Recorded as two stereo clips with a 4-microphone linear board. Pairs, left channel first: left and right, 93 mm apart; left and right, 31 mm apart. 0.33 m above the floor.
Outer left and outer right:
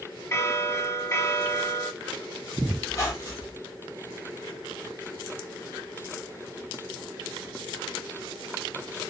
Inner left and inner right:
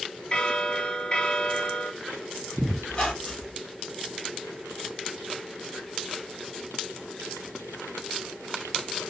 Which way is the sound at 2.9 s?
30° left (ahead or behind).